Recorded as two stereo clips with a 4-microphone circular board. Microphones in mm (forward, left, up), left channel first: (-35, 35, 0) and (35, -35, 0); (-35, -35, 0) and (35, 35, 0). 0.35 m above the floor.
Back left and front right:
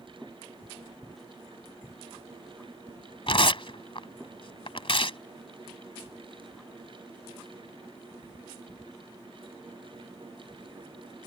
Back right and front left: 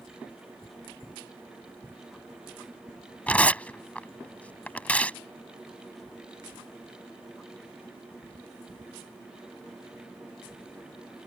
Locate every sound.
3.3 s tearing paper: 150° left